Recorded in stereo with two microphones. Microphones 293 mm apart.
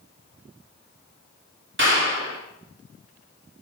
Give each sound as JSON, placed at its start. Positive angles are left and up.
{"t": 1.8, "sound": "a clap", "side_deg": -40, "distance_m": 3.0}